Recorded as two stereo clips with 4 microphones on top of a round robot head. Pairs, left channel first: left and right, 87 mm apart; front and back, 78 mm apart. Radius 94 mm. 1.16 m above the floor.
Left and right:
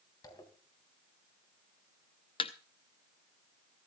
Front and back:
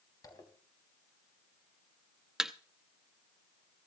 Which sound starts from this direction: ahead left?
A zipper, at 0.2 s.